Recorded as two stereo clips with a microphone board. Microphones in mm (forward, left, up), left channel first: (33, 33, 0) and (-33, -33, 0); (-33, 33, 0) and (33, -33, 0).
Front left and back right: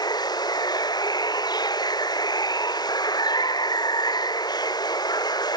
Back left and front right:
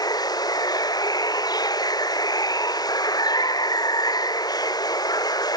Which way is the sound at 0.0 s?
90° left.